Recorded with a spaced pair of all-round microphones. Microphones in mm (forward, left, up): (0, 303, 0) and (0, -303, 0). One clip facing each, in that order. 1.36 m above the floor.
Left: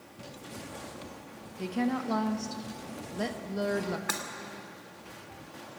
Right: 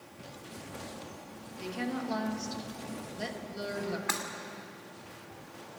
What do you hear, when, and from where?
1.6 s a woman speaking: 70° left (ahead or behind), 1.6 m
4.1 s breaking glass: 10° right (ahead or behind), 2.5 m